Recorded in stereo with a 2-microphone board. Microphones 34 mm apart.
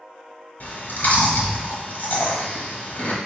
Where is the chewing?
65° left (ahead or behind), 1.0 m.